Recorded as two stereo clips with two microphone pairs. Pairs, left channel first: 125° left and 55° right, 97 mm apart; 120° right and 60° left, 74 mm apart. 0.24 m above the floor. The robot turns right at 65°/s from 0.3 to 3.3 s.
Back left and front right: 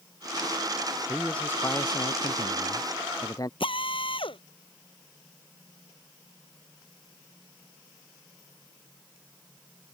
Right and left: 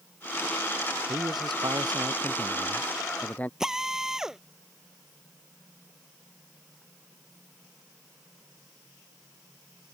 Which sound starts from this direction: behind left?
A drill, at 3.6 s.